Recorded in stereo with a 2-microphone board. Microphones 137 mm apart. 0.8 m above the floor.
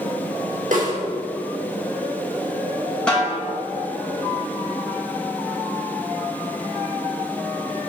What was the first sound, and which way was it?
A snare drum, 75° right (ahead or behind).